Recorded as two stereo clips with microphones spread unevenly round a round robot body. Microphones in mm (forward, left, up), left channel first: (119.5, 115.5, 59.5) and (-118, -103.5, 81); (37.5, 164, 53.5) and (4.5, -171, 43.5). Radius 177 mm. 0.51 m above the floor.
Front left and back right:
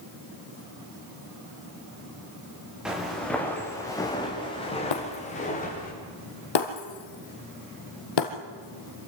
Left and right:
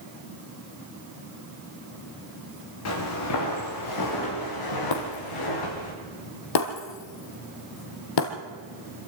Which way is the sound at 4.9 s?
55° left.